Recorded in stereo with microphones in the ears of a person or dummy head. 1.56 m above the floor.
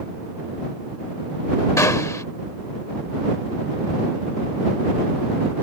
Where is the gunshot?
10° left (ahead or behind).